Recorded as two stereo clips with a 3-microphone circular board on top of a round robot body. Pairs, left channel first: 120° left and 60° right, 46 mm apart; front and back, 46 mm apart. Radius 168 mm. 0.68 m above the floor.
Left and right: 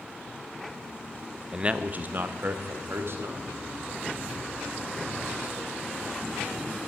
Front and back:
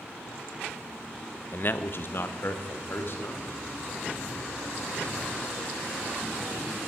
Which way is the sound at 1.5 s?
5° left.